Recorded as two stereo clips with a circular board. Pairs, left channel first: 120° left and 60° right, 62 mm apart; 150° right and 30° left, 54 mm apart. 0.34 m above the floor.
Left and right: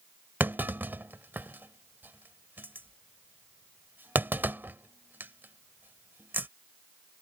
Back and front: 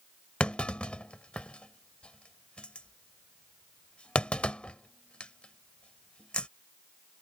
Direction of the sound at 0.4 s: 90° right.